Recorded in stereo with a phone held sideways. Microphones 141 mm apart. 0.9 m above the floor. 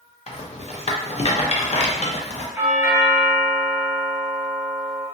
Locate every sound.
0.3 s a rattle: 50° left (ahead or behind), 0.5 m
2.6 s a doorbell: 15° right (ahead or behind), 0.7 m